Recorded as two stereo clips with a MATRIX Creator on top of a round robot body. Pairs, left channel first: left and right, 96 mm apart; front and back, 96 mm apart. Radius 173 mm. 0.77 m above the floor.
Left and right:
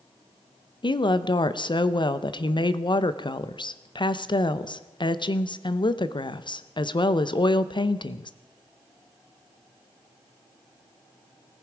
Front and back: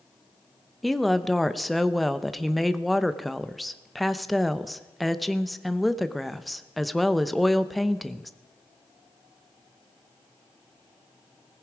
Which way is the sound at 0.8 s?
90° left.